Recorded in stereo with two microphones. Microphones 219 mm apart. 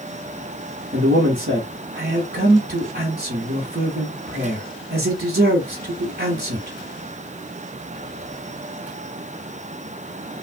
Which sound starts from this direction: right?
A man speaking, at 0.9 s.